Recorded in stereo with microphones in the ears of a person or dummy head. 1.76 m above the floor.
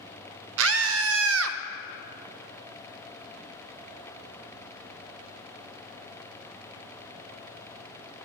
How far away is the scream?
About 0.5 m.